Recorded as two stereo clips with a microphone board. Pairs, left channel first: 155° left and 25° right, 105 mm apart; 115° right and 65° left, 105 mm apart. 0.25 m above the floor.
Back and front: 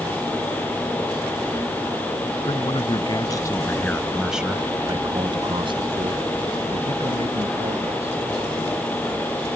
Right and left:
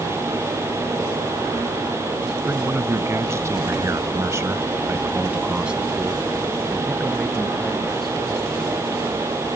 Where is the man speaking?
130° left; by 8.2 s 25° right.